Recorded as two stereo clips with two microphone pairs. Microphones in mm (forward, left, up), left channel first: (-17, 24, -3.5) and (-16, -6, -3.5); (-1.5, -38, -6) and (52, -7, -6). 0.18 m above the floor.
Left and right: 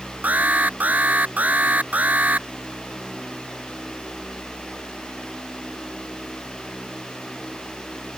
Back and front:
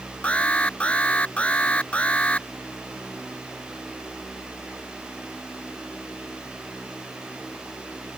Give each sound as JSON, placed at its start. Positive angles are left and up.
{"t": 0.2, "sound": "an alarm", "azimuth_deg": -85}